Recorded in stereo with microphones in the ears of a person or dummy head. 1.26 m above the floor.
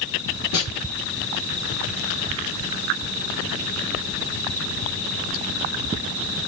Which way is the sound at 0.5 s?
65° left (ahead or behind).